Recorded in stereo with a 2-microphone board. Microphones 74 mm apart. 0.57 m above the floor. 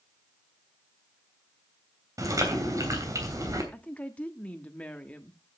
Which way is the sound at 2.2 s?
45° right (ahead or behind).